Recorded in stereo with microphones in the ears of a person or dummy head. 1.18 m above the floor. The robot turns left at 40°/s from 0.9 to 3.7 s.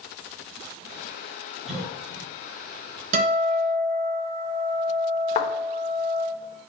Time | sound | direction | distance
1.7 | a cough | centre (ahead or behind) | 3.5 m
3.1 | a guitar | 45° right (ahead or behind) | 2.5 m
5.3 | a thud | 40° left (ahead or behind) | 1.0 m